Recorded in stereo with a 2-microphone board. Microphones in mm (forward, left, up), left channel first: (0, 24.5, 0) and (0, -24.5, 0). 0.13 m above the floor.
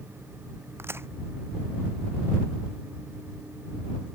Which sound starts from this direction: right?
A crack, at 0.8 s.